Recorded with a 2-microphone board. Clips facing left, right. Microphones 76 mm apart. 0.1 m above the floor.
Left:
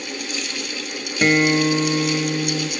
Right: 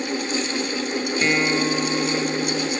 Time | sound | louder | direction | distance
1.2 | a guitar | left 6 dB | 35° left (ahead or behind) | 1.6 m